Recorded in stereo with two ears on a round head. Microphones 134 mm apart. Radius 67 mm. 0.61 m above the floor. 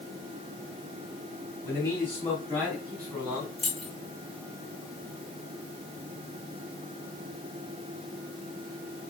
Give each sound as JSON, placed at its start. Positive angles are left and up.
{"t": 1.6, "sound": "a man speaking", "side_deg": 20, "distance_m": 3.5}
{"t": 3.6, "sound": "keys jangling", "side_deg": 0, "distance_m": 4.0}